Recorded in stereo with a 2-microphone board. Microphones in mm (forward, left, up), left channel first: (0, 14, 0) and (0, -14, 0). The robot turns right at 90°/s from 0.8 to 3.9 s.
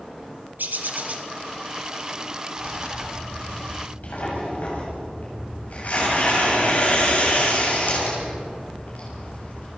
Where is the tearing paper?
60° right (ahead or behind), 7.5 m; by 9.7 s 60° left (ahead or behind), 7.5 m.